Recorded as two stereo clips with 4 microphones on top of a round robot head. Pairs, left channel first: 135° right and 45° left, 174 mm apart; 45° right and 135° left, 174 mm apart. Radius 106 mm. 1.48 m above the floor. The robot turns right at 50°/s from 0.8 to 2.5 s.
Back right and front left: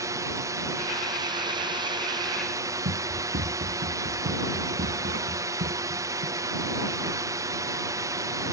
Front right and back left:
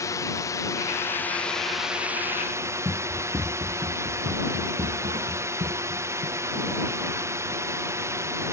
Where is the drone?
Straight ahead; by 8.5 s 85° left.